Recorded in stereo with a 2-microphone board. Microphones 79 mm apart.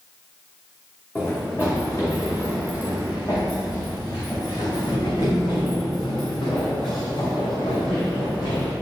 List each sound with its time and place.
1.1 s running footsteps: 30° left (ahead or behind), 3 m; by 8.7 s 80° left, 4.5 m